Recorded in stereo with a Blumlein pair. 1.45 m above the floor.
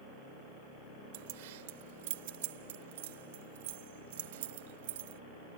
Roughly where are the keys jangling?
Ahead right.